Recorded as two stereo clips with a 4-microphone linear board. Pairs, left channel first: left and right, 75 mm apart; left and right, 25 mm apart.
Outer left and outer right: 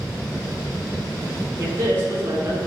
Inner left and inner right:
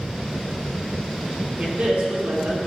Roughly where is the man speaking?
Right.